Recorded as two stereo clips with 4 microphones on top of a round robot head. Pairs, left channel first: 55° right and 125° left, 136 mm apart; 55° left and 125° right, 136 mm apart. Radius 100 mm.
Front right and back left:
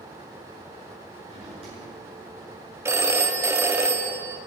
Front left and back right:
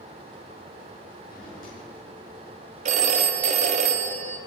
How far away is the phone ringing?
About 1.0 m.